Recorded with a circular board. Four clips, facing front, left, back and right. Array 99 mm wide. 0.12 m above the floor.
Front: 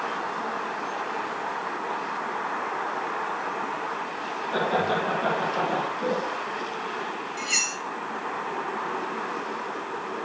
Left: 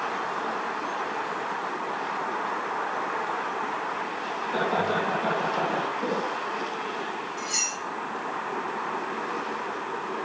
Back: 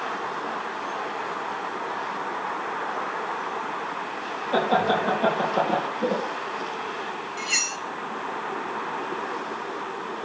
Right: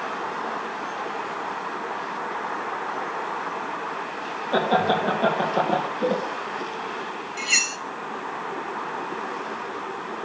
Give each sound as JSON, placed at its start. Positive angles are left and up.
{"t": 4.5, "sound": "laughter", "azimuth_deg": -115, "distance_m": 3.5}
{"t": 7.4, "sound": "cutlery clinking", "azimuth_deg": -95, "distance_m": 1.5}